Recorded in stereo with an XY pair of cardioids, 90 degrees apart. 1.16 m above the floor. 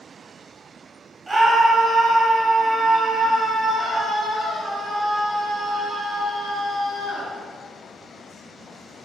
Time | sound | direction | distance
1.3 | a scream | 30° right | 6.5 m